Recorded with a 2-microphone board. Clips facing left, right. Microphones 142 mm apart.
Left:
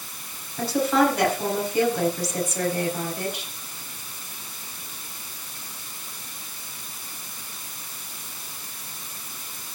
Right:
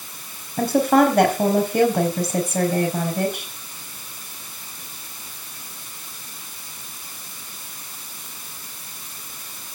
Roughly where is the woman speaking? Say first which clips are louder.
Right 5 dB; right.